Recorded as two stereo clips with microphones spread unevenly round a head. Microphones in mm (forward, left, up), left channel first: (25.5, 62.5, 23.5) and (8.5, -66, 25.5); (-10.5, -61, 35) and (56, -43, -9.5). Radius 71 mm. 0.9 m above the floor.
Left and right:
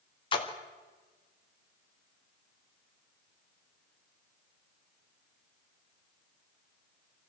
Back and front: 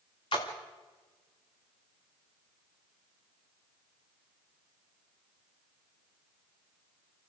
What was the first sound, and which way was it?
A splash, 135° left.